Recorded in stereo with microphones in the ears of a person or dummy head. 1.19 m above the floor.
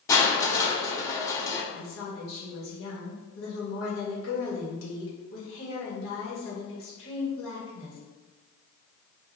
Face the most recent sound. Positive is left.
turn(degrees=70)  # may be behind; listen again after turning